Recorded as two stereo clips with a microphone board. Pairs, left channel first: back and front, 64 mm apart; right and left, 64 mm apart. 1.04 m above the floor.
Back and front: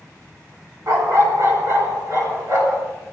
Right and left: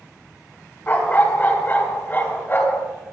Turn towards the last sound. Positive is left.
turn(degrees=-35)